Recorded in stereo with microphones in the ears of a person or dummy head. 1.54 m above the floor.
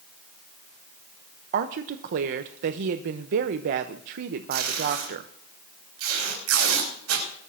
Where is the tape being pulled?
85° right, 4.5 m.